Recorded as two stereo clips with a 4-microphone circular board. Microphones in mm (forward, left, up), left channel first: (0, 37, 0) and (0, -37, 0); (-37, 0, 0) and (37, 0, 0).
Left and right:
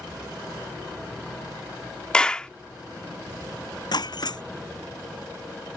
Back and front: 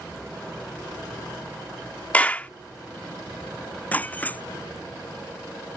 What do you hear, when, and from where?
2.1 s a clap: 150° left
3.9 s breaking glass: 110° left